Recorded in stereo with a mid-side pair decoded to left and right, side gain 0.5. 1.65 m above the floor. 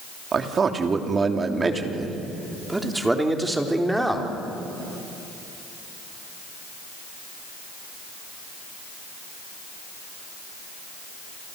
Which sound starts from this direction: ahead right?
A man speaking, at 0.3 s.